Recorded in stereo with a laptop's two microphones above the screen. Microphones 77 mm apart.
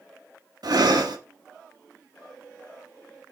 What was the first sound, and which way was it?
Breathing, 65° right (ahead or behind).